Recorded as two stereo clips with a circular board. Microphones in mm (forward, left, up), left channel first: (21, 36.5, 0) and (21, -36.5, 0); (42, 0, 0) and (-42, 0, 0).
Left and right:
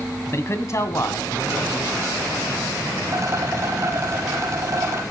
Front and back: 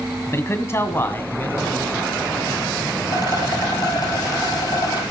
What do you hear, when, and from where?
0.3 s a man speaking: 50° left, 1.8 m; by 2.7 s 65° left, 3 m
3.1 s a rattle: 40° right, 3.5 m